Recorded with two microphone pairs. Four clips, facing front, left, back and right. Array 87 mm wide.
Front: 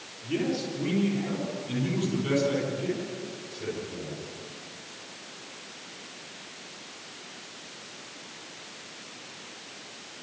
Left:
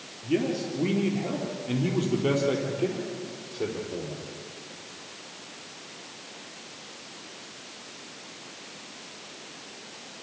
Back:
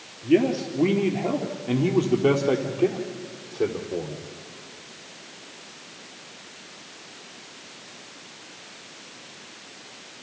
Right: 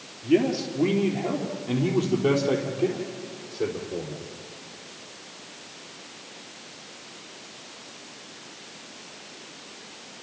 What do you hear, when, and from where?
0.2 s a man speaking: 155° right, 3 m; by 4.3 s 175° right, 5.5 m